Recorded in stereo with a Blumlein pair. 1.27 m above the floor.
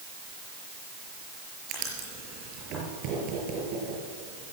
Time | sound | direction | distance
1.7 | writing | 35° right | 5.5 m